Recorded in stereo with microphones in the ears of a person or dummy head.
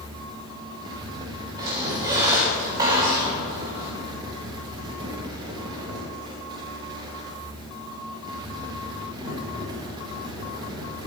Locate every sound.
0.0 s a fan: 25° right (ahead or behind), 1.3 m
1.6 s a squeak: 25° right (ahead or behind), 2 m